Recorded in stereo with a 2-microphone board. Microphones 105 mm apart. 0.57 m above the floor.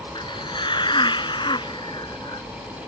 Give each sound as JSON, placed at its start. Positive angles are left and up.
{"t": 0.1, "sound": "a hiss", "side_deg": 50}